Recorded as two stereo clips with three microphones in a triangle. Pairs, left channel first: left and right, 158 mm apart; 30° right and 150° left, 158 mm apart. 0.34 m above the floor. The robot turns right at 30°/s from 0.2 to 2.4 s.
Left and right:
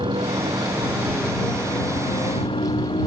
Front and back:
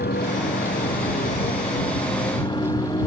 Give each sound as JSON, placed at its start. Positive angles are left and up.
{"t": 0.0, "sound": "a motorcycle", "azimuth_deg": -30}